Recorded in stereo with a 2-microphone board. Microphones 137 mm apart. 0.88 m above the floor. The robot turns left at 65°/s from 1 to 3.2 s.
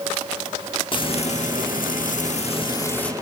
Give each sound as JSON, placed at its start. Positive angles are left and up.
{"t": 0.9, "sound": "frying", "azimuth_deg": 145, "distance_m": 1.2}